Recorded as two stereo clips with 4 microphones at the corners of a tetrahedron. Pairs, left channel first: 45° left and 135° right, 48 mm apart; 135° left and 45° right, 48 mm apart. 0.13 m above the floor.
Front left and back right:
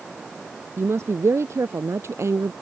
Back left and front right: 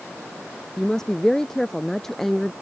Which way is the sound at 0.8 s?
145° right.